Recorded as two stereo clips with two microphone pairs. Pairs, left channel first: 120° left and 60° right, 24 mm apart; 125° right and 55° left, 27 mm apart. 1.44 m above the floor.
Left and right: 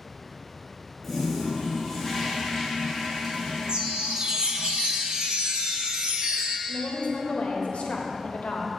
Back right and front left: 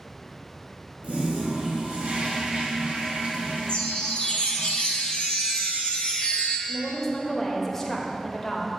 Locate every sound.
1.0 s a toilet flushing: 30° left, 1.5 m
3.7 s a chime: 90° right, 0.9 m
6.7 s a woman speaking: 155° left, 1.1 m